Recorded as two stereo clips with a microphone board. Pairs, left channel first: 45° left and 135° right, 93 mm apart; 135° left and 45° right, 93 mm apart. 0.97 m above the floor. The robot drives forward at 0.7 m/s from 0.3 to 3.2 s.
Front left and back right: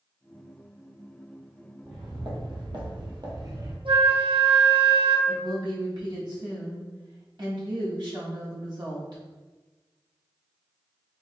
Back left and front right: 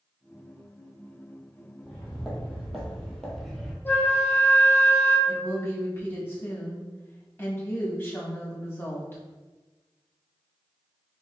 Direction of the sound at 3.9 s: 155° right.